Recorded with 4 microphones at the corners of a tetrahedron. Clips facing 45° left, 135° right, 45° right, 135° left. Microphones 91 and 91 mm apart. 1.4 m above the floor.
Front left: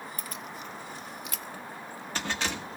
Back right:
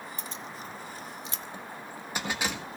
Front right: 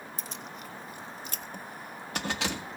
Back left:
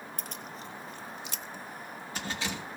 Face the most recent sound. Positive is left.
turn(degrees=-55)